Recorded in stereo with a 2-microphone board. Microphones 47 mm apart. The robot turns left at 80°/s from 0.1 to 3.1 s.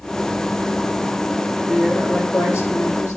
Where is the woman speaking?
175° right, 7 m; by 3.2 s 70° left, 7 m.